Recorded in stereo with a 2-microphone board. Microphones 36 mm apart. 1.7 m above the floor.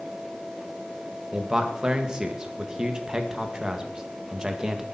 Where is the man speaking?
25° right (ahead or behind), 1.7 m.